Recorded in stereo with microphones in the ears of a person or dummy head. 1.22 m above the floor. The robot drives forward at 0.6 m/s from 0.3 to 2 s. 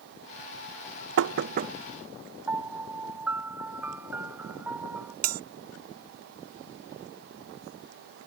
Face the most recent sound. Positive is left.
turn(degrees=-50)  # may be behind; listen again after turning